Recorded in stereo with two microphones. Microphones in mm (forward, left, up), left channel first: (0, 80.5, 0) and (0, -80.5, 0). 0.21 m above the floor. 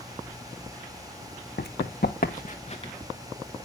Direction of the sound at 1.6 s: 80° left.